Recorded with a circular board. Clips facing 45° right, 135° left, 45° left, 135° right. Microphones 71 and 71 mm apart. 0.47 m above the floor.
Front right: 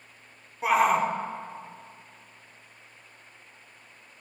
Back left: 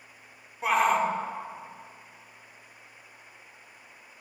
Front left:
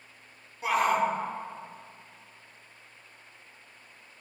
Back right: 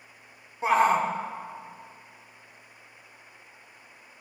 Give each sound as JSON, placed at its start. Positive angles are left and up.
{"t": 0.6, "sound": "a shout", "azimuth_deg": -130, "distance_m": 0.8}